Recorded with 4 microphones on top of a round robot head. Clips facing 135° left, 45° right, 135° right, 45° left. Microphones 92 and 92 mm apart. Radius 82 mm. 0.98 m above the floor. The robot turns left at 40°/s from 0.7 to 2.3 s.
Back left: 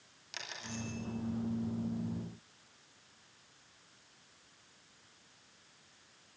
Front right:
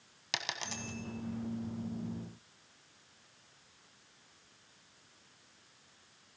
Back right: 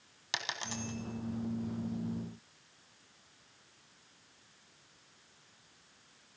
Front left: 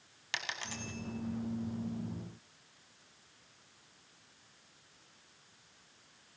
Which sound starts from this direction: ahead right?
A dropped coin, at 0.3 s.